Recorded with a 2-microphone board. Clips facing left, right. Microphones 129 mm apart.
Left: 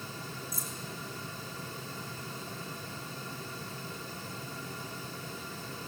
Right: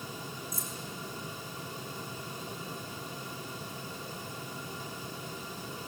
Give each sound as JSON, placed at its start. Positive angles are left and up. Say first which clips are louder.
{"t": 0.5, "sound": "keys jangling", "louder": "right 1 dB", "side_deg": 5, "distance_m": 6.5}